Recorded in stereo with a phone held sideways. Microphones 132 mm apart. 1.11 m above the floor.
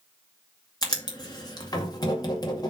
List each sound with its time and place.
0.8 s writing: 30° left (ahead or behind), 2.0 m